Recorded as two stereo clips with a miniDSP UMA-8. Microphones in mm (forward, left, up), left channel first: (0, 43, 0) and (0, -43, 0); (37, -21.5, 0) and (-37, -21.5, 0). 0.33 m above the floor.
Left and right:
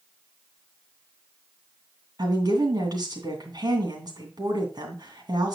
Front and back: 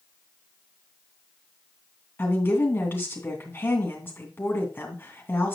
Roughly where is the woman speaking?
Ahead right.